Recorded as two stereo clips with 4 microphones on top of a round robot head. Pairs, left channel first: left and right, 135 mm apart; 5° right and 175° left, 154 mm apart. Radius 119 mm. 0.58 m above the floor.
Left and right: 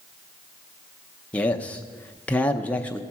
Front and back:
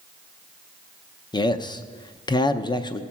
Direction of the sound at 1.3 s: 20° left.